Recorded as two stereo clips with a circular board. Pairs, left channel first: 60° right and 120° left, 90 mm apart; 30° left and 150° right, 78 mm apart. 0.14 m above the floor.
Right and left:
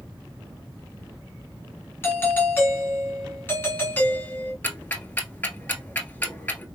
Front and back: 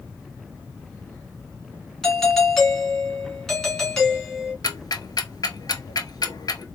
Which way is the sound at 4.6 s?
5° left.